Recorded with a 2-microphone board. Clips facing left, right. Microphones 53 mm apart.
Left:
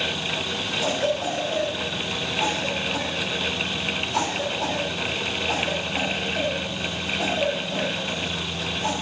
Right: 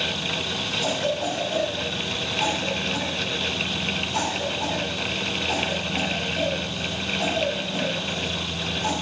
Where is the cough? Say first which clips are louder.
Left 2 dB; 70° left (ahead or behind), 5.5 m.